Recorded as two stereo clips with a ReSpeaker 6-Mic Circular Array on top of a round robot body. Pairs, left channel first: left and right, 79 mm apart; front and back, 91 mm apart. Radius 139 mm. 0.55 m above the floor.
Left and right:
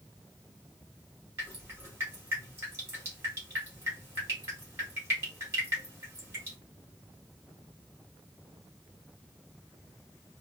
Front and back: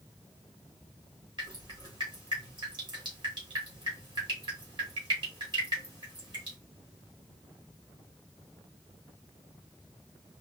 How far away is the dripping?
About 2.5 m.